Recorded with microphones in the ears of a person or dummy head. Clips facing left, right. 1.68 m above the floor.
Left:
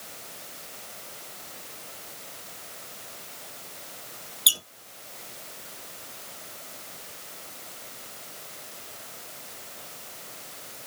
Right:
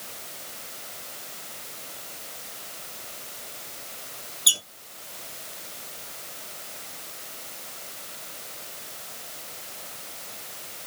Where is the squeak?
20° left (ahead or behind), 1.4 m.